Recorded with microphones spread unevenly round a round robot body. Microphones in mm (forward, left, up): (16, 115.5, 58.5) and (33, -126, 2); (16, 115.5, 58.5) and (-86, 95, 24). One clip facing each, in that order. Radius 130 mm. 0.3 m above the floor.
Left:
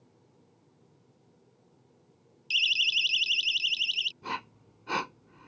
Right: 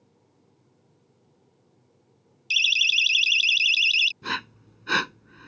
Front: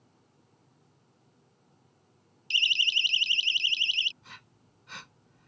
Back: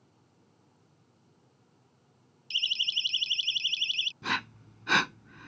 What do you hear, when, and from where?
2.5 s a siren: 40° right; by 4.1 s 55° right
4.2 s breathing: 150° right